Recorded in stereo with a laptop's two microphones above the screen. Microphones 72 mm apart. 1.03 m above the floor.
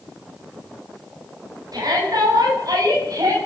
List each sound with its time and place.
1.7 s a shout: 60° right (ahead or behind), 9 m; by 3.4 s 55° right (ahead or behind), 8.5 m